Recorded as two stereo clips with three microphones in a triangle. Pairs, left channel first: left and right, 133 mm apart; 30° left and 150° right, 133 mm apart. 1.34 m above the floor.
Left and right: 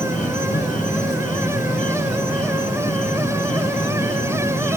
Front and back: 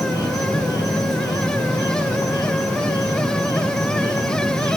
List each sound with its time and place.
0.0 s an insect: 90° left, 3 m